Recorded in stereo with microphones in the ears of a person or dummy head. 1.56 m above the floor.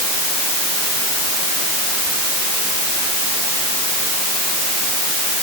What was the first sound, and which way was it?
Only background noise.